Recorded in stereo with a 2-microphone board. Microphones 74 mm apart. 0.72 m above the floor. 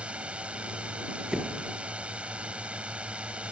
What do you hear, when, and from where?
0.0 s a drone: 15° right (ahead or behind)
1.3 s a door slam: 10° right (ahead or behind)